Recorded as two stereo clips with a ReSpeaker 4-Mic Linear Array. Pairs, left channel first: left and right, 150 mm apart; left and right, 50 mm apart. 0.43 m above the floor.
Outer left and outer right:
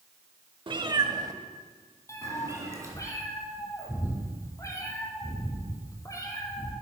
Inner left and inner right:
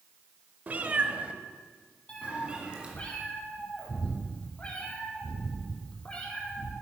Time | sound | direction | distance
0.7 | a cat meowing | 35° right (ahead or behind) | 0.6 m
2.1 | a cat meowing | 20° left (ahead or behind) | 2 m